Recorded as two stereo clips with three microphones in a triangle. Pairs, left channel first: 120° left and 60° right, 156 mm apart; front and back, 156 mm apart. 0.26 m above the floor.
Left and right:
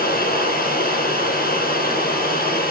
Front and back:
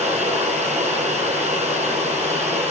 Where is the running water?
135° left, 4 m.